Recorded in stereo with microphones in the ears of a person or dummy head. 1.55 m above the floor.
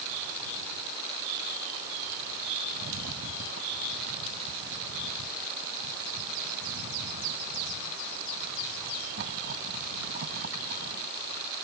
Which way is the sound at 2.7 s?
60° right (ahead or behind).